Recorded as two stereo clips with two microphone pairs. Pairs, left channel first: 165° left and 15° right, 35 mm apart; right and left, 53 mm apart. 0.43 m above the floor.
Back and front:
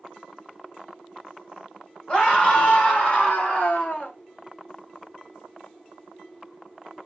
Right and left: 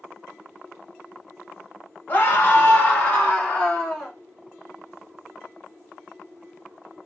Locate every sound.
2.1 s a scream: 145° right, 2.5 m; by 4.1 s 170° right, 2 m